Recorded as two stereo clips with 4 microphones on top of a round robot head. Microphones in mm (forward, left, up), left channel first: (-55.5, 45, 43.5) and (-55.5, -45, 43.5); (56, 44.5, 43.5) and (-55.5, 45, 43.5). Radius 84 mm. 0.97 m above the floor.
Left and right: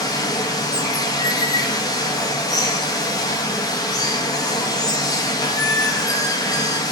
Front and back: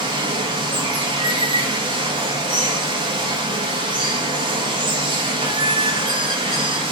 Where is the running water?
135° left, 1.0 m.